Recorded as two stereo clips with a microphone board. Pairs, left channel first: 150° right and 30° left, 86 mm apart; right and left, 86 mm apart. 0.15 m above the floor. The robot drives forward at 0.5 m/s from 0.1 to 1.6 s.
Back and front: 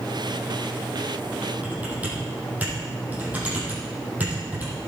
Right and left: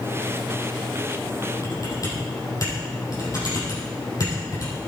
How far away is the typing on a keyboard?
About 4.5 m.